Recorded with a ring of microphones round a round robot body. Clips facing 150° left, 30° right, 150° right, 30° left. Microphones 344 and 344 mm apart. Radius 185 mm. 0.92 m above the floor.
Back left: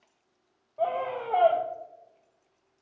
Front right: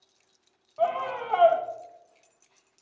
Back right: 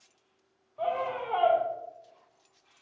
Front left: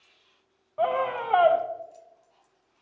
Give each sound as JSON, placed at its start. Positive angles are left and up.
{"t": 0.8, "sound": "a scream", "azimuth_deg": 30, "distance_m": 0.7}